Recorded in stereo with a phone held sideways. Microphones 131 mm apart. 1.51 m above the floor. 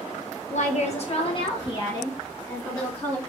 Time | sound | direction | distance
0.5 | a woman speaking | 65° left (ahead or behind) | 1.6 m